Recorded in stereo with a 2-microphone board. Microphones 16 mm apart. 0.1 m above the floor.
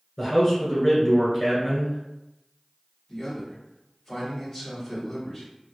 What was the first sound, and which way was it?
A man speaking, 15° left (ahead or behind).